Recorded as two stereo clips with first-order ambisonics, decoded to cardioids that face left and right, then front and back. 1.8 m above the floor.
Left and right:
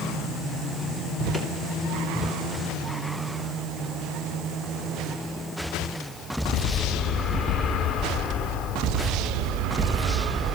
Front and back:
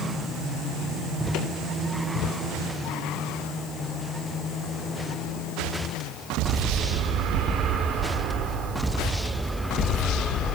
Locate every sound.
1.3 s a drawer: 15° left, 3 m